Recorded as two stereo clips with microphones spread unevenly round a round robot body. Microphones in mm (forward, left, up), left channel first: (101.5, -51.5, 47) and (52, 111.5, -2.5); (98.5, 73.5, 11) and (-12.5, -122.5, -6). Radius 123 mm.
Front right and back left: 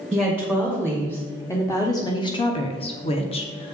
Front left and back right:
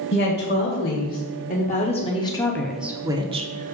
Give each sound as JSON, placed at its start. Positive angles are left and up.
{"t": 0.1, "sound": "a woman speaking", "azimuth_deg": 20, "distance_m": 1.9}